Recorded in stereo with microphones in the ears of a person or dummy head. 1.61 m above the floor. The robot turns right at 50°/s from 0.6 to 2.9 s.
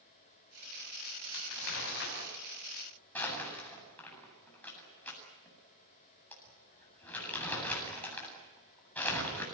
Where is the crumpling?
85° left, 8.5 m; by 9.4 s 15° left (ahead or behind), 8.5 m.